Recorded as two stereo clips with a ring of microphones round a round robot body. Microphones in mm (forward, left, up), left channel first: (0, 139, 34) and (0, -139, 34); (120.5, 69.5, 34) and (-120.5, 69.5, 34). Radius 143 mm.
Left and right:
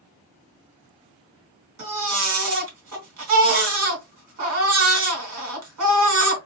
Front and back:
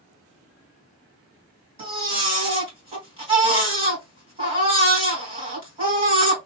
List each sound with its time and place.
1.8 s a baby crying: 115° right, 1.9 m